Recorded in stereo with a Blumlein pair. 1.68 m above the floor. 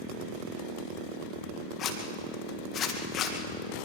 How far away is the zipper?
About 2 m.